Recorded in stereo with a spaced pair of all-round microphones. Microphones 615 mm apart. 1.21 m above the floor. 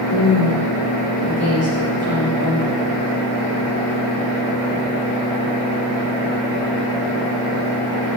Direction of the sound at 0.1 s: 25° left (ahead or behind).